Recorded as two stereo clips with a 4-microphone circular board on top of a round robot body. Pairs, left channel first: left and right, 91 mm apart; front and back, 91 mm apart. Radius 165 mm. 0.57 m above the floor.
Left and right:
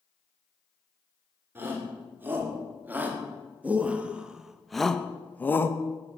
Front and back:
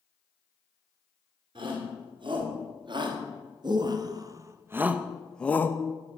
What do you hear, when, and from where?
1.6 s a shout: 155° right, 2 m; by 5.8 s 45° left, 0.8 m